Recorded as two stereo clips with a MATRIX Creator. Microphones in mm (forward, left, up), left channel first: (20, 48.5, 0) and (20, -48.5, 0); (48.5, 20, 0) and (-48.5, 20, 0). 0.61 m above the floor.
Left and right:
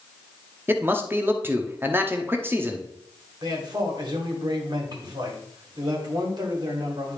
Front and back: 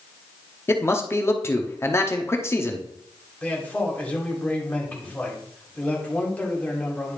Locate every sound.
0.7 s a man speaking: 40° right, 0.9 m
3.4 s a man speaking: 70° right, 2 m